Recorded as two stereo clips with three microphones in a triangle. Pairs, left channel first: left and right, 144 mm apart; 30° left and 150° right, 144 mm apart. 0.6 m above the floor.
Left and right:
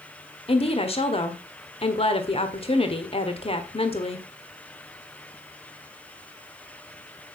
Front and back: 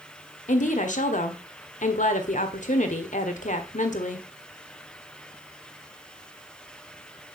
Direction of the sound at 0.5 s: 50° left.